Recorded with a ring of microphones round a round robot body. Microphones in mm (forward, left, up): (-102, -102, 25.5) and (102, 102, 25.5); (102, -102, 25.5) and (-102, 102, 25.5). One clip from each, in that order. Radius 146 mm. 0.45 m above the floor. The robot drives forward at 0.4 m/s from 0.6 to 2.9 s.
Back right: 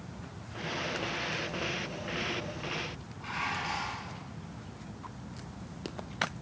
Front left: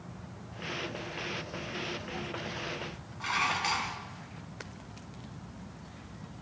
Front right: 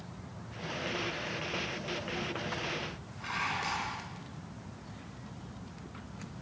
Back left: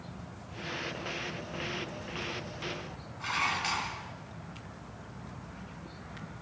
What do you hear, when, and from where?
3.2 s dishes clattering: 70° left, 3.5 m